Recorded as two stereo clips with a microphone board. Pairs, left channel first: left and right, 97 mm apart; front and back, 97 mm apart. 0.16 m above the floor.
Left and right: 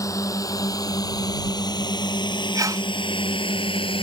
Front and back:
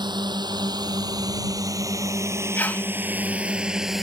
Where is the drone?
145° left; by 4.0 s 90° left.